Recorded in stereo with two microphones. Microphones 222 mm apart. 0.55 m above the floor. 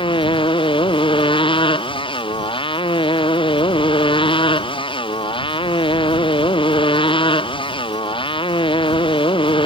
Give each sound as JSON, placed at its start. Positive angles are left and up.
{"t": 0.0, "sound": "a motorcycle", "side_deg": 25}